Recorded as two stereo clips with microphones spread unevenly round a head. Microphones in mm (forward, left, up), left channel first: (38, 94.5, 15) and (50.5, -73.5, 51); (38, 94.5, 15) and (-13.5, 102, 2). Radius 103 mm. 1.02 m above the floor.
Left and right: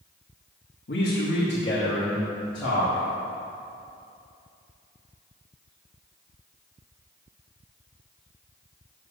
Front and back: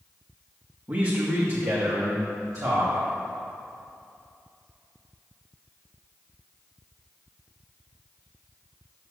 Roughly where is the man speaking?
Behind left.